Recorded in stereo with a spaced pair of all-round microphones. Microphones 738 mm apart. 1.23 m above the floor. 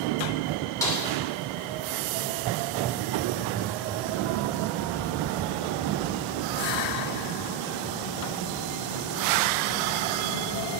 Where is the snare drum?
5° left (ahead or behind), 2.5 m.